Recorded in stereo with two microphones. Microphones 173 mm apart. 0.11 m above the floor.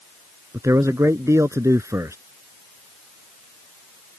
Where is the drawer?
No drawer in this recording.